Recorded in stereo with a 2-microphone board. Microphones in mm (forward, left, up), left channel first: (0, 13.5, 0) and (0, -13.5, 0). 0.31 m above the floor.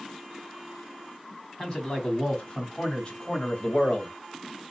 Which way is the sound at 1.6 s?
30° left (ahead or behind).